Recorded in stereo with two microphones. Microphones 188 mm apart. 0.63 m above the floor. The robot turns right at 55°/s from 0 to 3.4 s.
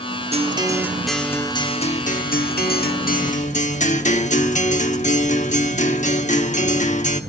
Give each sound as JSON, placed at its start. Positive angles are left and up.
{"t": 0.3, "sound": "a guitar", "azimuth_deg": -40, "distance_m": 1.1}